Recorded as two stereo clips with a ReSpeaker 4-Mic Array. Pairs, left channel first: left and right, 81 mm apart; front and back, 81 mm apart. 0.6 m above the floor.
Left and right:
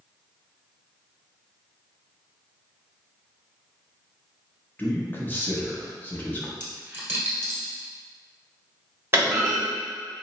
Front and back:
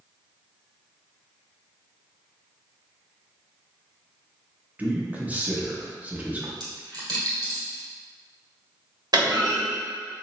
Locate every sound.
4.8 s a man speaking: 130° left, 0.7 m
6.6 s a dropped coin: 155° right, 1.6 m
9.1 s a clunk: 150° right, 1.4 m